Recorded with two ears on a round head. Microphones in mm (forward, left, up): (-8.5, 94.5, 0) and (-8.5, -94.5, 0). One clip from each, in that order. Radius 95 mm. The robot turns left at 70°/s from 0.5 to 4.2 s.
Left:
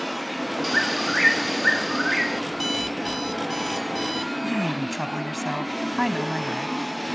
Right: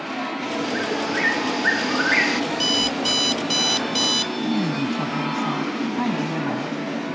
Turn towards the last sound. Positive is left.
turn(degrees=60)  # may be behind; listen again after turning